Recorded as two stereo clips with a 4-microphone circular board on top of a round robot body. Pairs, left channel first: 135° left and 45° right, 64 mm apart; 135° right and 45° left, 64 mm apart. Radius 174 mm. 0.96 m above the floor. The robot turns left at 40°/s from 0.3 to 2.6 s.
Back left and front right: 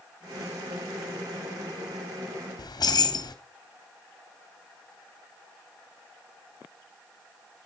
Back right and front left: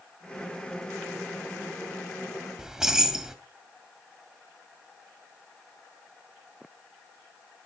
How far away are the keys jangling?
About 1.9 m.